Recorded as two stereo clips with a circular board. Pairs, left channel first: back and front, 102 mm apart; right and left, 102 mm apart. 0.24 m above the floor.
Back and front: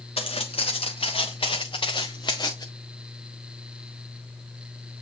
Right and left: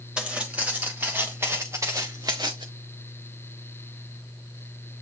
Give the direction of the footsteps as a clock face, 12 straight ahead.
6 o'clock.